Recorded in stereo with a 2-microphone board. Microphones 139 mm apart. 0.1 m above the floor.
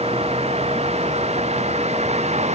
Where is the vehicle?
45° right (ahead or behind); by 2.6 s 50° right (ahead or behind).